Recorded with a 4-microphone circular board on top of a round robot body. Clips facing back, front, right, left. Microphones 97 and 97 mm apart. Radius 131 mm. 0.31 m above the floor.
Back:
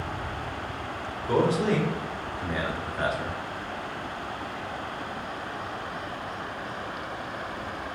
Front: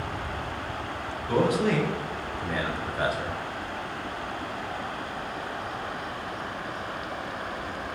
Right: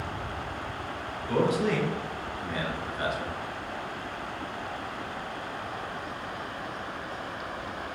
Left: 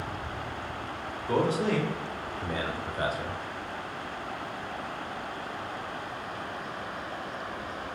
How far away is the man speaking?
About 1.4 m.